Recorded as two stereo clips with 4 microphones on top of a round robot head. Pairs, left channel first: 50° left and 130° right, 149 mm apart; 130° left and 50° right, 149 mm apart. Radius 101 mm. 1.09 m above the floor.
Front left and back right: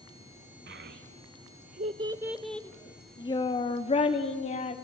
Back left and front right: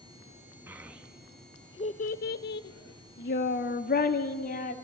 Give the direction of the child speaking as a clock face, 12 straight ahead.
4 o'clock.